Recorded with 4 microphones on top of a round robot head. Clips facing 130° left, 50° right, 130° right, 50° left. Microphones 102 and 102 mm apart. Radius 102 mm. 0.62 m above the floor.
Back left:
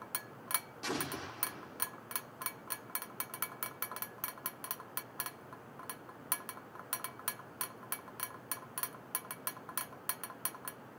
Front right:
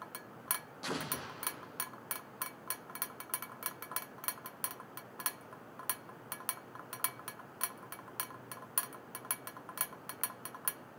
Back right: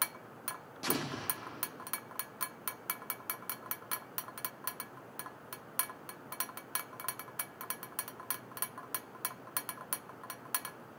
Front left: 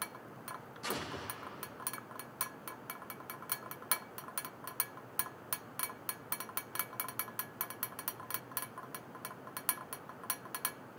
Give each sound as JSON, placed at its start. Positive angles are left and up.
{"t": 0.8, "sound": "an explosion", "azimuth_deg": -135, "distance_m": 6.5}